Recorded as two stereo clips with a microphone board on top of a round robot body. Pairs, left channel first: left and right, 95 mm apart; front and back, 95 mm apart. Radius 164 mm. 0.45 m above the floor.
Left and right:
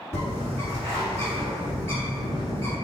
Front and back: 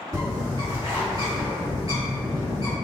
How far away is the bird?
About 1.6 m.